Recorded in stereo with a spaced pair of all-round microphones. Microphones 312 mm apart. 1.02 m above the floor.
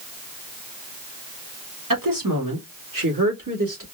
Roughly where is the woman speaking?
Right.